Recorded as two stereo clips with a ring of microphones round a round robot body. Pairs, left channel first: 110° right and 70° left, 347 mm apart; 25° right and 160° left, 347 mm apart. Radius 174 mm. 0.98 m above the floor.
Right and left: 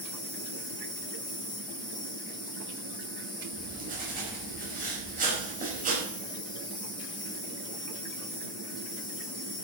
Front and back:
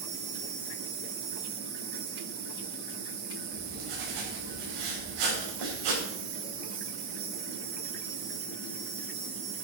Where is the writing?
135° left, 5 m.